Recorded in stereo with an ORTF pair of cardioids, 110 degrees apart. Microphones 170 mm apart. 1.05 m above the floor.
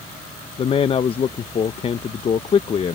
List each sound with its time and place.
0.6 s a man speaking: 35° left